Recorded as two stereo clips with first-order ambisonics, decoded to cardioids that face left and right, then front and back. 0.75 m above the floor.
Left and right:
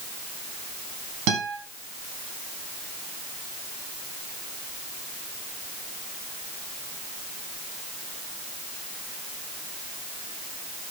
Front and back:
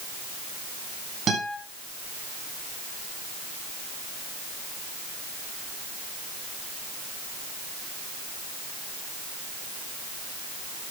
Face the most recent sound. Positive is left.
turn(degrees=-115)